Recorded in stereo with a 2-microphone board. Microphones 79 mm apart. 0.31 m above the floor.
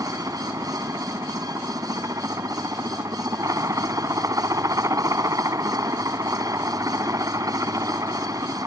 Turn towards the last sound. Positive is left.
turn(degrees=-45)  # may be behind; listen again after turning